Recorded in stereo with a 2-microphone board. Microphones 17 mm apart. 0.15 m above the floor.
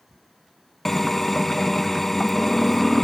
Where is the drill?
15° left (ahead or behind), 0.6 m.